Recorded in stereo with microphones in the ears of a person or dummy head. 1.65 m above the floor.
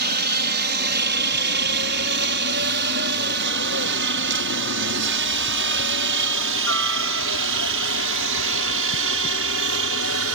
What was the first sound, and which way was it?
A helicopter, 55° right (ahead or behind).